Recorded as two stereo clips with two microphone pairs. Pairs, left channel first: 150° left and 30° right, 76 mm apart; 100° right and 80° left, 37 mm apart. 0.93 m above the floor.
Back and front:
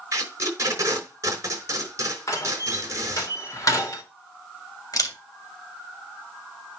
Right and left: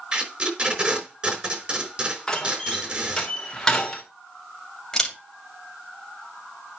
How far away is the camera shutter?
About 2.5 m.